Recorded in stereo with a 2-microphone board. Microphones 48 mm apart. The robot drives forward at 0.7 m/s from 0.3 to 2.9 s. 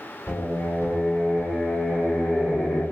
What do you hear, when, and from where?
0.3 s singing: 45° left (ahead or behind), 3.5 m; by 2.8 s 30° left (ahead or behind), 5 m